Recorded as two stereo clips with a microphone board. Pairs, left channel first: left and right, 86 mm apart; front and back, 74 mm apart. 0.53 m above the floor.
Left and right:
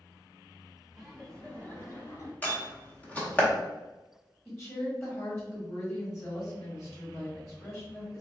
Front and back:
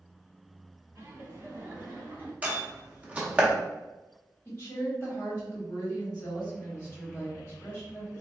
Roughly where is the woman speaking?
Ahead left.